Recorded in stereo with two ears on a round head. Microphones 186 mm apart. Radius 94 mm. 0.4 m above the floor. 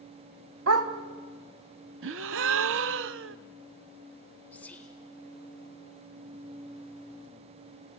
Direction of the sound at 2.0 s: 65° right (ahead or behind).